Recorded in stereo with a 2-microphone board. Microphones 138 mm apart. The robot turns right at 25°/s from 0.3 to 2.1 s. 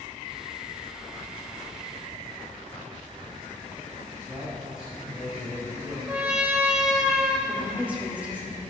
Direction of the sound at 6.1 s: 5° right (ahead or behind).